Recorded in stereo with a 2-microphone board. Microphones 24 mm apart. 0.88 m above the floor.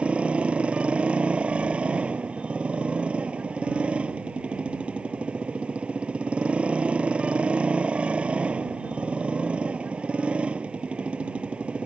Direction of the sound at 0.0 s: 60° right (ahead or behind).